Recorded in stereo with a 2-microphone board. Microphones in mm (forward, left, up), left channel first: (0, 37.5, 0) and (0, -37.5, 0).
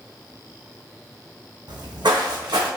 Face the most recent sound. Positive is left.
turn(degrees=-75)  # may be behind; listen again after turning